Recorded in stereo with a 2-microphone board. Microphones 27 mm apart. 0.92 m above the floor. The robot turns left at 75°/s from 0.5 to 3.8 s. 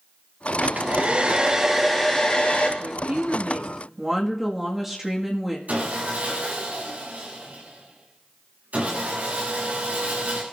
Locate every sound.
0.6 s a hair dryer: 90° right, 4 m; by 2.7 s 115° left, 4 m
2.8 s a woman speaking: 90° right, 1.8 m; by 5.6 s 165° right, 1.8 m
5.7 s sawing: 75° right (ahead or behind), 8.5 m